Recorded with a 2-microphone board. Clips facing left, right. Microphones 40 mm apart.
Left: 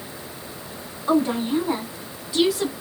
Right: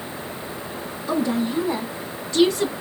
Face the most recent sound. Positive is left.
turn(degrees=-5)  # may be behind; listen again after turning